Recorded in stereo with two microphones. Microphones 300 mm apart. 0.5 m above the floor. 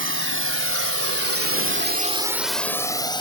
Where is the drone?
40° right (ahead or behind); by 3.2 s 15° left (ahead or behind).